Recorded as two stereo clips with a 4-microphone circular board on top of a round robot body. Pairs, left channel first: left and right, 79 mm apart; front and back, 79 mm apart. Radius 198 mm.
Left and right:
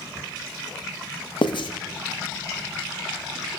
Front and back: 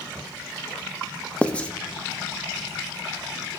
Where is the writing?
75° left, 0.6 m.